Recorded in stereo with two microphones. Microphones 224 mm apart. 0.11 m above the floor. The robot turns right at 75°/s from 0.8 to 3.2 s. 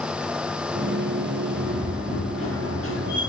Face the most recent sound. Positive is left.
turn(degrees=130)